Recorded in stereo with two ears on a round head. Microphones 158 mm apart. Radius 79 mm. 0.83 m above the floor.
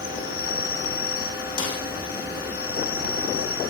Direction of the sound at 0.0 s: 55° left (ahead or behind).